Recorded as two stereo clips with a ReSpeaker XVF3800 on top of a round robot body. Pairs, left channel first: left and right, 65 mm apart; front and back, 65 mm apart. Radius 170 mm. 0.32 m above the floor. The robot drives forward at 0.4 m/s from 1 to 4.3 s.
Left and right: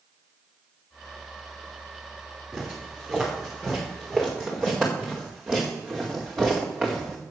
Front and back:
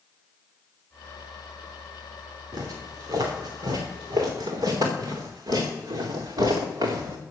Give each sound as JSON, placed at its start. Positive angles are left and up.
{"t": 2.5, "sound": "footsteps", "azimuth_deg": -170, "distance_m": 6.0}